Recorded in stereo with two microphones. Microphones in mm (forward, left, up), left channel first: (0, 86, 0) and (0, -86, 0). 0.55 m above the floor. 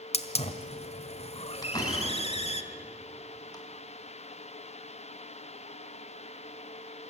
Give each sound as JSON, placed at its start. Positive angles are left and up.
{"t": 0.1, "sound": "a hiss", "side_deg": 40, "distance_m": 1.7}
{"t": 1.6, "sound": "a door slam", "side_deg": 20, "distance_m": 4.0}